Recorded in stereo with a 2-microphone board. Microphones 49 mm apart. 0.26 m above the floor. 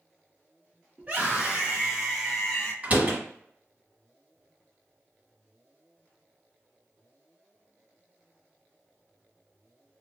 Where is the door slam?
35° right (ahead or behind), 1.3 m.